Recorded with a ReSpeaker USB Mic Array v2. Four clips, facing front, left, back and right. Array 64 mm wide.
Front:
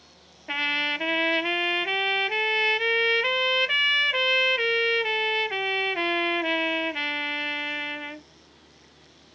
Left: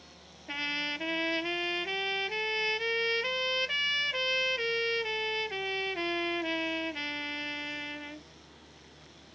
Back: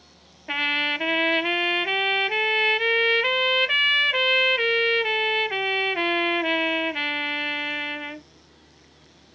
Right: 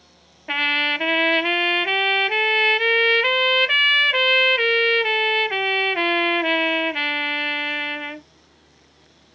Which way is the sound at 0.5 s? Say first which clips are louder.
Right 13 dB, back 2 dB; 95° right.